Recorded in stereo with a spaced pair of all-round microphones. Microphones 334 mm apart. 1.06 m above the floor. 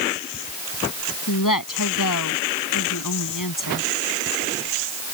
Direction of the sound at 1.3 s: 70° left (ahead or behind).